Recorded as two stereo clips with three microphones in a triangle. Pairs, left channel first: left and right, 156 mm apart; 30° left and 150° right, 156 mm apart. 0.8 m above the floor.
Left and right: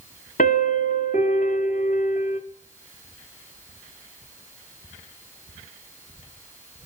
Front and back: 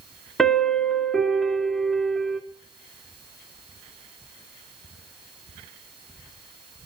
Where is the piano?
120° left, 1.8 m.